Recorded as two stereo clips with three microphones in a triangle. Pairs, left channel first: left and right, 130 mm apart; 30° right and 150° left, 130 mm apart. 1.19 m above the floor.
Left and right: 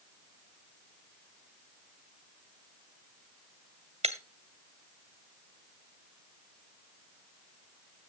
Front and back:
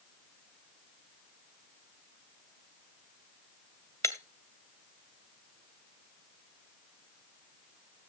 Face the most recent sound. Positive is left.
turn(degrees=-95)